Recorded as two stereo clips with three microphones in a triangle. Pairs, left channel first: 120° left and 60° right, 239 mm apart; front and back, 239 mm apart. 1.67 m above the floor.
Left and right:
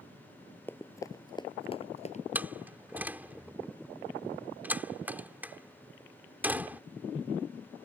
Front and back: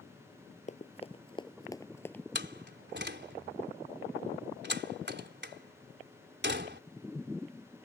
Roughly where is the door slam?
Behind right.